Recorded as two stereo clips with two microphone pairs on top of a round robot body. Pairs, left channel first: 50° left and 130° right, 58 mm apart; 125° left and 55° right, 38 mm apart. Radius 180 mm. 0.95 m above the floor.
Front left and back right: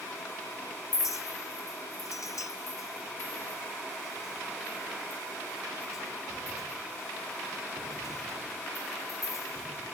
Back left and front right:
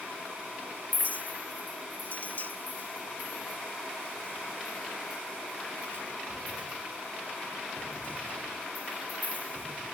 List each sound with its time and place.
0.9 s a clink: 75° left, 1.3 m